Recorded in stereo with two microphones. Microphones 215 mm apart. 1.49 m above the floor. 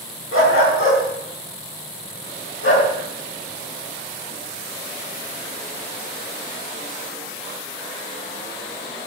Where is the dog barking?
80° left, 4.5 m; by 2.9 s 60° left (ahead or behind), 4.5 m.